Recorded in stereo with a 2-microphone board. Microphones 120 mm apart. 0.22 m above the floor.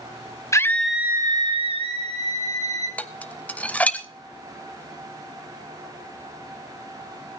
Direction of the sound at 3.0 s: 10° left (ahead or behind).